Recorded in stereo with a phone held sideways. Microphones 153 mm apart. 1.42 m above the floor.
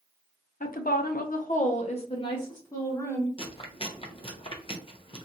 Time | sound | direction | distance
0.6 | a woman speaking | 65° left (ahead or behind) | 0.6 m
3.4 | chewing | 35° left (ahead or behind) | 0.6 m